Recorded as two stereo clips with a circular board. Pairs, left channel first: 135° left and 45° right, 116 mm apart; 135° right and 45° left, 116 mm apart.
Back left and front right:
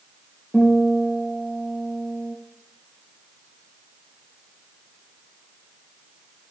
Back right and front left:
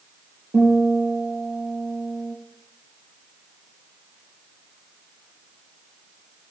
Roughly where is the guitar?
Ahead left.